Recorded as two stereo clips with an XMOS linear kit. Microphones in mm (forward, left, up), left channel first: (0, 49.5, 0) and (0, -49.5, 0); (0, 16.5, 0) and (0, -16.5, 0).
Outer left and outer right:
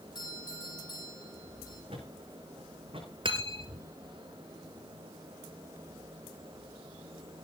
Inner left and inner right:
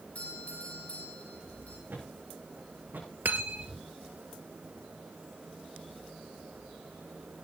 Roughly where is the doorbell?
Left.